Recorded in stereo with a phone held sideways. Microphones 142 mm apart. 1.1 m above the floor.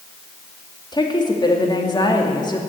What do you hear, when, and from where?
0.9 s a woman speaking: 30° left (ahead or behind), 2 m